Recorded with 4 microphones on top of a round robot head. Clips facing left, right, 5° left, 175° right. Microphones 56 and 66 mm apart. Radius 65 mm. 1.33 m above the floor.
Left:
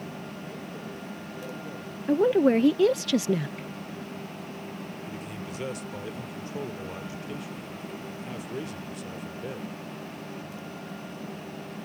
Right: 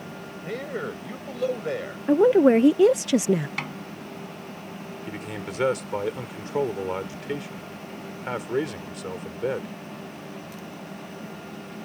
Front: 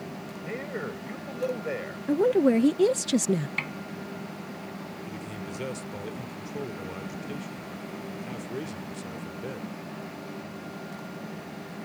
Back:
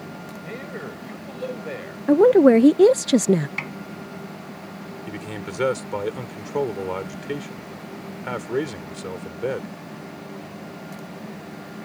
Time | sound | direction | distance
0.5 | a man speaking | 75° right | ?
2.1 | a woman speaking | 155° right | ?
3.6 | a snare drum | 90° right | ?
5.1 | a man speaking | 135° right | ?